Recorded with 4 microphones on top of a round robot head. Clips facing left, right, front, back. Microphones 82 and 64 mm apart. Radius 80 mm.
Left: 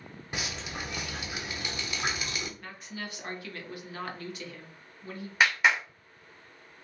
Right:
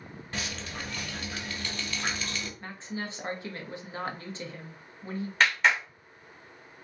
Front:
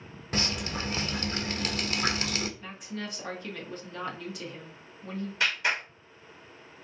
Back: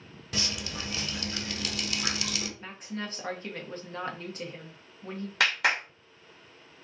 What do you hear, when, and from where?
0.3 s dripping: 25° left, 0.6 m
2.6 s a woman speaking: 145° right, 1.1 m
5.4 s a clap: 170° left, 1.3 m